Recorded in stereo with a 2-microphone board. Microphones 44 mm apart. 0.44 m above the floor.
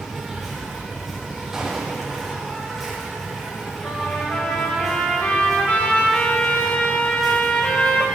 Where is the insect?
Centre (ahead or behind), 3 m.